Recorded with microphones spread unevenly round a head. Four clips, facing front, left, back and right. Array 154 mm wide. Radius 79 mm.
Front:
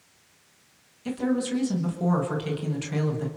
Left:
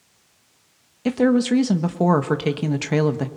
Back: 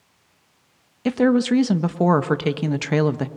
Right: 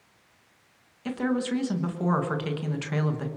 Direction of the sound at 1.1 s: 140° left.